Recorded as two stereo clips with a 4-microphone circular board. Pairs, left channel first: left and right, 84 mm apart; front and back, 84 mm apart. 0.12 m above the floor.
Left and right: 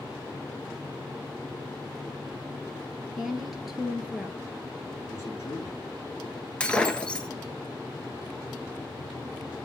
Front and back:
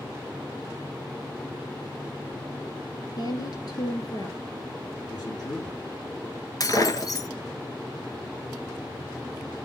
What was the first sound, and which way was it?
A woman speaking, 5° right.